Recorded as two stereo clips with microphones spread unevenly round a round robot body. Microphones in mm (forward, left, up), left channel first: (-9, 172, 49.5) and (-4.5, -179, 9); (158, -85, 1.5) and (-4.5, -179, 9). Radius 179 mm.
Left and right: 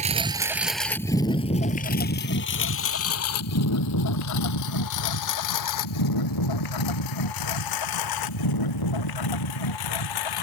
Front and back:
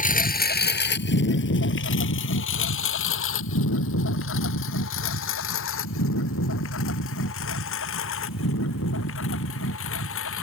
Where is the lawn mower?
15° right; by 10.4 s 65° left.